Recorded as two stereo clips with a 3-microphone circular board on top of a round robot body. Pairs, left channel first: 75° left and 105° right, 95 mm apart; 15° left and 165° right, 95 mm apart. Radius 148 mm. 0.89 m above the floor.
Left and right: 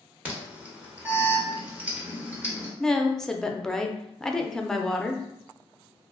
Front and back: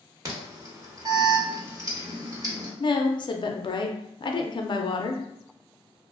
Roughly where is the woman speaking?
Ahead.